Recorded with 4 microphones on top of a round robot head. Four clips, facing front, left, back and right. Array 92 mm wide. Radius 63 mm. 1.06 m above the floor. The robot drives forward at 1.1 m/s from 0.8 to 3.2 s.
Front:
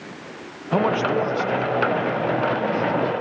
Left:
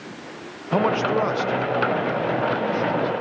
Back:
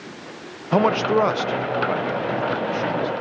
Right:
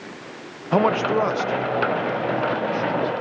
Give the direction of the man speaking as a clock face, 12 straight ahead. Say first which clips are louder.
Right 1 dB, back 2 dB; 4 o'clock.